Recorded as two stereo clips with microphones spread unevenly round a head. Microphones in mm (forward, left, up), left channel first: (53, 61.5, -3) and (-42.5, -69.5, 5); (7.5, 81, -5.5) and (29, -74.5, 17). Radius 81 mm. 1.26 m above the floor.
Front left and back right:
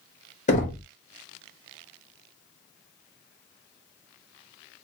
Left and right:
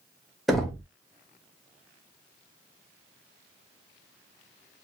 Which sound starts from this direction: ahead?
Knocking, at 0.5 s.